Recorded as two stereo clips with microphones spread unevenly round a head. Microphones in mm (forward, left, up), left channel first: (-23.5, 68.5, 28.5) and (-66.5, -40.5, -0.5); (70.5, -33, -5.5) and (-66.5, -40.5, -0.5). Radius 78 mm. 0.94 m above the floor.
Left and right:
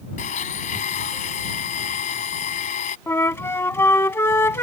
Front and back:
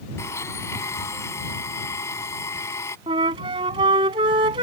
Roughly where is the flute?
Behind left.